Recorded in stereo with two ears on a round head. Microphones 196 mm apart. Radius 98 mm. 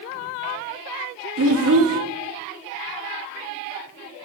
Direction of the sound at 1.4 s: 65° right (ahead or behind).